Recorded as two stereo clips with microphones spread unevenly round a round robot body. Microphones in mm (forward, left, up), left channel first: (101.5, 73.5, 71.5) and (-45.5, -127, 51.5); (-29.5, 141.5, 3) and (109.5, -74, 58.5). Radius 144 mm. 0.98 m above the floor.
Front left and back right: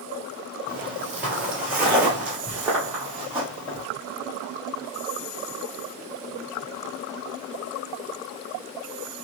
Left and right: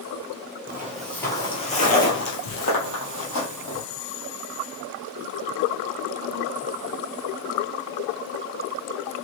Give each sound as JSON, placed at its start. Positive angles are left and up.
{"t": 0.7, "sound": "footsteps", "azimuth_deg": -35, "distance_m": 1.0}